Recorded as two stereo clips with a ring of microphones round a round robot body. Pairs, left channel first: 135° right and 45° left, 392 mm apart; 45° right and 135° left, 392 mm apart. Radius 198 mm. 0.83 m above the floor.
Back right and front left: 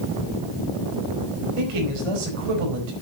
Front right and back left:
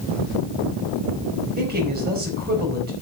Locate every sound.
1.6 s a man speaking: 70° left, 5 m